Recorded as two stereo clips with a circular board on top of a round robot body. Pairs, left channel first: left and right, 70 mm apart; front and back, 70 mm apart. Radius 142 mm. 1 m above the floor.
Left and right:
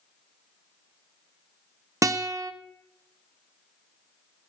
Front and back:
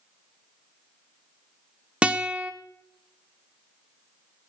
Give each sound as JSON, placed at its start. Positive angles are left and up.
{"t": 2.0, "sound": "a guitar", "azimuth_deg": -110, "distance_m": 0.9}